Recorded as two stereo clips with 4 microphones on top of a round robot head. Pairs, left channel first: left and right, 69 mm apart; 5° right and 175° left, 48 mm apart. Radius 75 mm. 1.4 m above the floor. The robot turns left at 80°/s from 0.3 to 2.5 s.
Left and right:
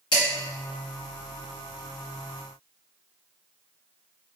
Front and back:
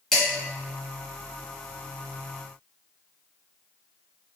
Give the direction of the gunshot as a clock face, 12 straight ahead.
I don't hear a gunshot.